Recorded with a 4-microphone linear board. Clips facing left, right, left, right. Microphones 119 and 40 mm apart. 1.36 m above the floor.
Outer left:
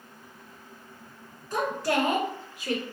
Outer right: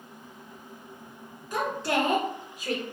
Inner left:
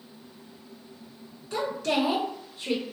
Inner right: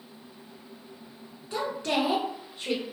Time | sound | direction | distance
1.5 | a woman speaking | 15° right (ahead or behind) | 1.0 m